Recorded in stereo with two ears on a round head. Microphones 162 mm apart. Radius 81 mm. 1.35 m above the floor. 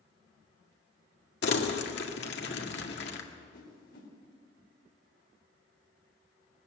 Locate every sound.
1.4 s crumpling: 65° left (ahead or behind), 2.0 m
3.5 s a whoosh: 60° left (ahead or behind), 4.5 m